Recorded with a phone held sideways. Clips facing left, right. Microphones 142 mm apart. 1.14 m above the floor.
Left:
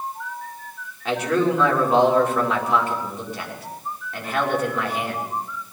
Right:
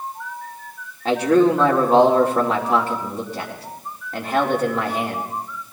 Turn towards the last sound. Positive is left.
turn(degrees=-35)  # may be behind; listen again after turning